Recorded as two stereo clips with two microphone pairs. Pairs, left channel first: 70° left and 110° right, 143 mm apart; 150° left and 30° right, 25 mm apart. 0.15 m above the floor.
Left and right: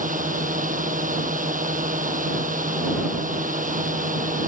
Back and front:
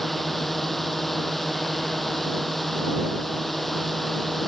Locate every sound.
0.0 s a drone: 125° right